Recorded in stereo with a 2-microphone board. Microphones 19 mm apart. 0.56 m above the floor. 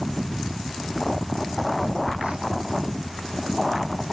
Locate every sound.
1.8 s a phone buzzing: 80° right